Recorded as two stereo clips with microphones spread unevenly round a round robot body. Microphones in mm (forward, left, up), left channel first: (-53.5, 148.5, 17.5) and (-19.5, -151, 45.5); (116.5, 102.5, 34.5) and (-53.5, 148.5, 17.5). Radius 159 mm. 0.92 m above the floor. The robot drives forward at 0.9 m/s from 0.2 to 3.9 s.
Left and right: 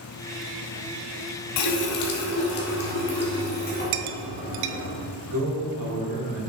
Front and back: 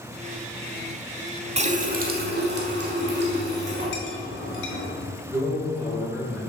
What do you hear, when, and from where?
1.6 s a running tap: 110° left, 1.1 m; by 4.9 s 155° left, 2.5 m
3.9 s a clink: 65° right, 0.6 m
5.3 s a man speaking: 120° right, 3 m